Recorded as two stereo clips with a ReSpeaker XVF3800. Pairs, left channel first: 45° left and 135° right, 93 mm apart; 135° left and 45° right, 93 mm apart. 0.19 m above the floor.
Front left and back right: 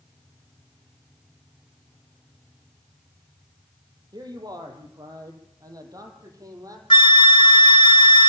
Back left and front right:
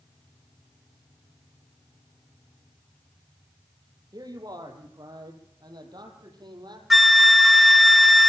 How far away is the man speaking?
About 5 m.